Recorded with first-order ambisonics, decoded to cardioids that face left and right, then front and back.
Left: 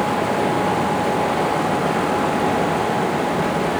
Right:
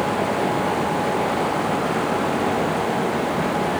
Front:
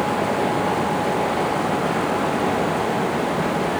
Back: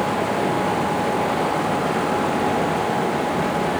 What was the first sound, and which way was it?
Only background noise.